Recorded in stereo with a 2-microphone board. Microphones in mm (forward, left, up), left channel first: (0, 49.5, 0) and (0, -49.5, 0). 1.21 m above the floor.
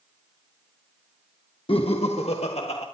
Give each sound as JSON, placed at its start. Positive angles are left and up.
{"t": 1.7, "sound": "laughter", "side_deg": 60, "distance_m": 1.2}